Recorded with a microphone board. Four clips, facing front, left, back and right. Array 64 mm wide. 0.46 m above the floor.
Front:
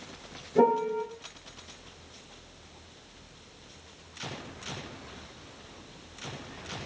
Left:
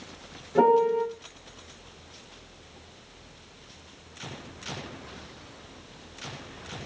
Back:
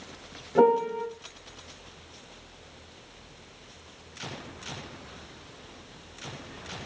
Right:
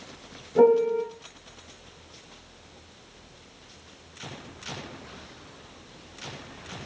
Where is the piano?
155° left, 4 m.